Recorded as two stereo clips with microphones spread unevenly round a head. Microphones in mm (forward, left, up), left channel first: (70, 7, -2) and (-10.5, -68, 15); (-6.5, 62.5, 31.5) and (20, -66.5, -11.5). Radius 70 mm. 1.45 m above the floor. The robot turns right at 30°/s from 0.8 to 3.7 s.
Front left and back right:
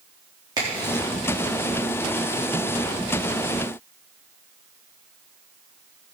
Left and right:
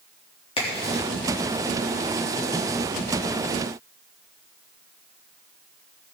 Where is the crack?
155° left, 4 m; by 1.0 s 165° left, 4 m.